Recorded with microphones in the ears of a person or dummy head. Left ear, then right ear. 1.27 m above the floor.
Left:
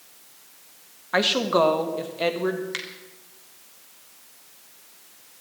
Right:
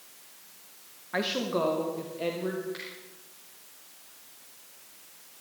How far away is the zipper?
I don't hear a zipper.